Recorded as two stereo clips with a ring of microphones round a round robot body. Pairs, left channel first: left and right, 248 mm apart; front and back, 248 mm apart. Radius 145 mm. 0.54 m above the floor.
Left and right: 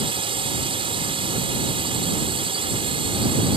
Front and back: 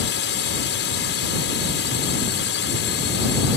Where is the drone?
25° right.